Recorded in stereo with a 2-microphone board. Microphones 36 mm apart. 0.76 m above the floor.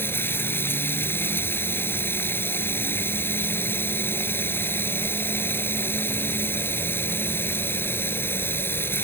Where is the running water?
85° left.